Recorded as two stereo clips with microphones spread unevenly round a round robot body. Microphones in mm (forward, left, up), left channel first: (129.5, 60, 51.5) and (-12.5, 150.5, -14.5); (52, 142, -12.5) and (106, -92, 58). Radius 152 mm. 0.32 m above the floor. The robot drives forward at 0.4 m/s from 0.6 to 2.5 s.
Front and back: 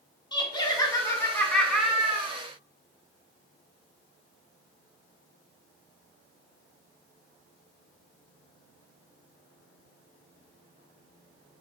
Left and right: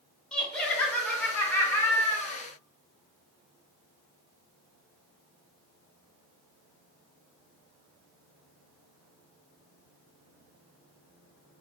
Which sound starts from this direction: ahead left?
Laughter, at 0.3 s.